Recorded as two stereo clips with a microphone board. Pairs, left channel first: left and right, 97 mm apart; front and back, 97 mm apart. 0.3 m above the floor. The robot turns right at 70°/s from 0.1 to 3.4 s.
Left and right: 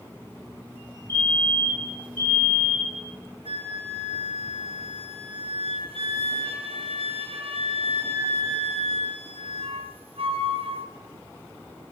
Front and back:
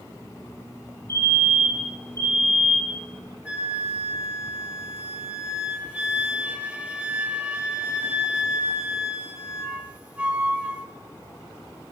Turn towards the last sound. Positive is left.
turn(degrees=-100)